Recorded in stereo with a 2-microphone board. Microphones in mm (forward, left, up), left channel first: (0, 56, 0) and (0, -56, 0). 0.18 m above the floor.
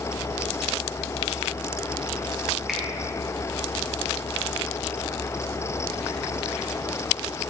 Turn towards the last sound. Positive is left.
turn(degrees=0)  # may be behind; listen again after turning